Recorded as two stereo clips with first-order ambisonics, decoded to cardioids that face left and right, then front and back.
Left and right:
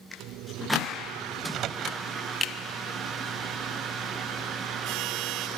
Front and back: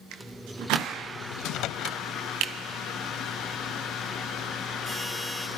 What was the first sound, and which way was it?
A microwave, 40° right.